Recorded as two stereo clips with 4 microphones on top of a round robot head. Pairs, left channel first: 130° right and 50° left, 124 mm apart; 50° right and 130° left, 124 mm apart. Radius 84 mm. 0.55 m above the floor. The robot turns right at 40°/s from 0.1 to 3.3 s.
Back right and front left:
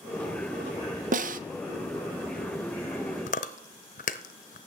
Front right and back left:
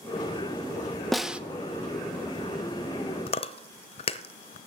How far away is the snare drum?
About 0.6 m.